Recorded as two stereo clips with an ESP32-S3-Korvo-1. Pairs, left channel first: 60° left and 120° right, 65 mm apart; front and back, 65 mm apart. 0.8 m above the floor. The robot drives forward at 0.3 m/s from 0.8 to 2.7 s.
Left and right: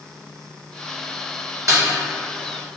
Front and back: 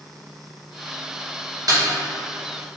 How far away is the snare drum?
About 1.9 m.